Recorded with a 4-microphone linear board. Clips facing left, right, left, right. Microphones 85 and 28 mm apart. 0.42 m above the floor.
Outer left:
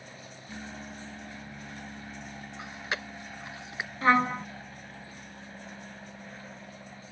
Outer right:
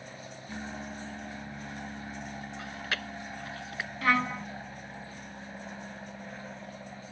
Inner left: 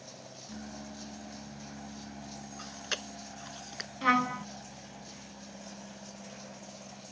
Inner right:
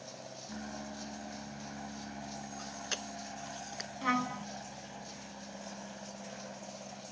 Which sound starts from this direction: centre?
An aircraft, at 0.0 s.